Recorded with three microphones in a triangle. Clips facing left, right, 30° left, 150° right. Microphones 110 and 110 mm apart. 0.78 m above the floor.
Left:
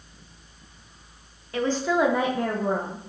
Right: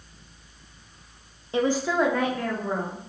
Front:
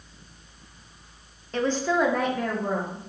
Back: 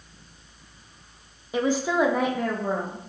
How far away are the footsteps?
No footsteps in this recording.